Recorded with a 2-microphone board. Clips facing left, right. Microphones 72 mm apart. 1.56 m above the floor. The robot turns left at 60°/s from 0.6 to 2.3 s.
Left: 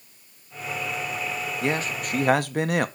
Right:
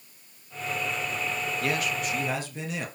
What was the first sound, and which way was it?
A man speaking, 155° left.